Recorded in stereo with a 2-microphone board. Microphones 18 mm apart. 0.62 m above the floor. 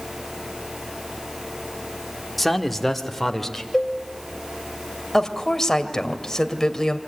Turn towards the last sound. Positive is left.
turn(degrees=20)  # may be behind; listen again after turning